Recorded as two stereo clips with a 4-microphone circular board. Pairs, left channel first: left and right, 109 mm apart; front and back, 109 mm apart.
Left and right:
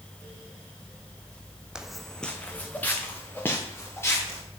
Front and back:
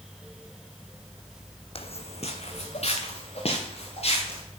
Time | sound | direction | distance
1.8 | footsteps | 10° right | 0.8 m